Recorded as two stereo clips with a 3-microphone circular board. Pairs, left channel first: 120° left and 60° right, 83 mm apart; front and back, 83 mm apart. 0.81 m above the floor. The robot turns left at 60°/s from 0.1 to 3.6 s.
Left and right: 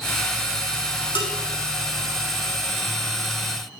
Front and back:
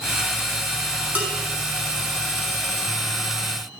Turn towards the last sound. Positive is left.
turn(degrees=-40)